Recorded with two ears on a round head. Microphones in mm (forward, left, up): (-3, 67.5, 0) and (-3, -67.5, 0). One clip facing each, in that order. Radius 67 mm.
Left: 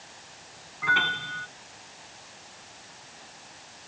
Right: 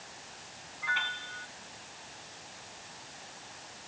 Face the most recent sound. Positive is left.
turn(degrees=65)  # may be behind; listen again after turning